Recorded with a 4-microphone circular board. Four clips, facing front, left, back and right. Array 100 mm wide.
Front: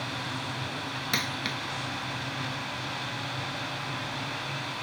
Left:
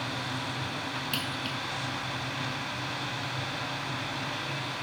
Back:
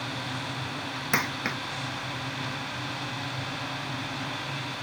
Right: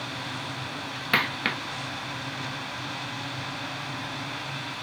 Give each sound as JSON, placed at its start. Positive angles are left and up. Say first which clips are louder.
{"t": 1.1, "sound": "a dropped coin", "louder": "right 8 dB, back 5 dB", "azimuth_deg": -115}